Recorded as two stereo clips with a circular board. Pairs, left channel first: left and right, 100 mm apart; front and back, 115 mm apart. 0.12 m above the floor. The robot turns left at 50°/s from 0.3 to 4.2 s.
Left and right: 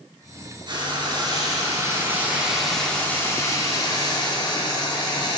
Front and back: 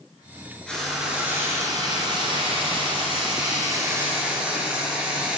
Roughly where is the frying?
Right.